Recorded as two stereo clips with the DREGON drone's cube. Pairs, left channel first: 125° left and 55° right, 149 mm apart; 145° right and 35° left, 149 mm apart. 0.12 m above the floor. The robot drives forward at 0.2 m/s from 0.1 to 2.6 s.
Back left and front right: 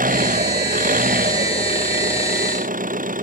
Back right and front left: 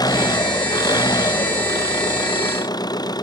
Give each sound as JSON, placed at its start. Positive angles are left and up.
{"t": 0.0, "sound": "an engine running", "azimuth_deg": -80}